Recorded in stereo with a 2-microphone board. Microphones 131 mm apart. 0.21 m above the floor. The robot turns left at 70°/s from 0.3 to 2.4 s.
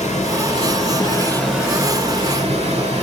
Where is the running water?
90° left, 2 m; by 3.0 s 55° right, 2 m.